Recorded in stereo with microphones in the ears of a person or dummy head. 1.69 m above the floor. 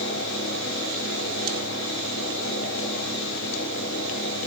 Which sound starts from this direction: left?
A fan, at 0.0 s.